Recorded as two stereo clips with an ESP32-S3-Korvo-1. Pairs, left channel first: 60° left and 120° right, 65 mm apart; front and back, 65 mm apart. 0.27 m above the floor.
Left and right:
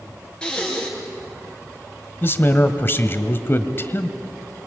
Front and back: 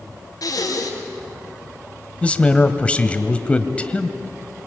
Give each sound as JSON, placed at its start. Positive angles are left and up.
{"t": 0.4, "sound": "breathing", "azimuth_deg": -15, "distance_m": 4.0}
{"t": 2.2, "sound": "a man speaking", "azimuth_deg": 55, "distance_m": 1.3}